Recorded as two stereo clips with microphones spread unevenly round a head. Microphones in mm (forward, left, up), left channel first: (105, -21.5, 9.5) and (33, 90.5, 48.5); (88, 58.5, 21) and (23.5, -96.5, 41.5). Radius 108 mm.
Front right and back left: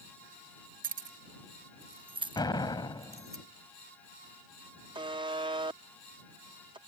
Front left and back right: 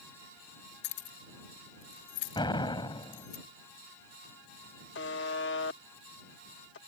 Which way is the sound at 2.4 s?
5° left.